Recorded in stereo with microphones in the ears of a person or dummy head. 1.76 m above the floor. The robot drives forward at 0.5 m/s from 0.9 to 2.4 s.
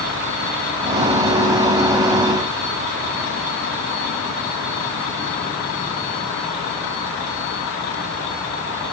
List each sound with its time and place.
Only background noise.